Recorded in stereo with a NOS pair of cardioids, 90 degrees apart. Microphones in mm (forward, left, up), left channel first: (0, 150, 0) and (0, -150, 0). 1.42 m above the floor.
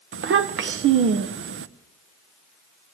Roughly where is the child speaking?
Ahead right.